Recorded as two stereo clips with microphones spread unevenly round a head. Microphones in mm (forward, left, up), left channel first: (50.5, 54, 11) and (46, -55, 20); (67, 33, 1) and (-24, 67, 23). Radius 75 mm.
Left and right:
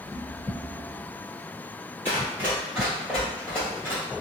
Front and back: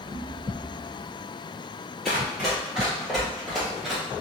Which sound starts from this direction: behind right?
Running footsteps, at 2.0 s.